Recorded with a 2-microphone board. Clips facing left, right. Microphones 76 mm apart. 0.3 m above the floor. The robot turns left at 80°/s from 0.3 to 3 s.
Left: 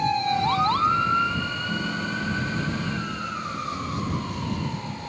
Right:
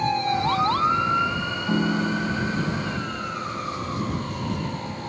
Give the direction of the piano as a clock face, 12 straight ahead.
3 o'clock.